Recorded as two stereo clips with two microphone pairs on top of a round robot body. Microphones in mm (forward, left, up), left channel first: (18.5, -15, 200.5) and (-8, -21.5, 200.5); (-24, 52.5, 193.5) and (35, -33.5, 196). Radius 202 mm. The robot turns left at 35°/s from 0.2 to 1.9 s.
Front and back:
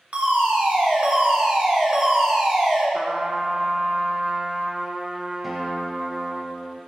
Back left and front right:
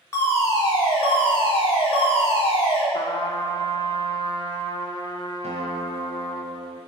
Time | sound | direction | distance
0.1 | a fire alarm | 175° right | 2.5 m
2.9 | a trumpet | 140° left | 1.3 m
5.4 | a guitar | 65° right | 0.6 m